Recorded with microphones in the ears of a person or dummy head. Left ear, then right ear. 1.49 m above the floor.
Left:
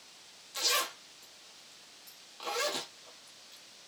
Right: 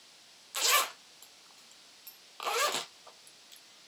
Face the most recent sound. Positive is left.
turn(degrees=-40)  # may be behind; listen again after turning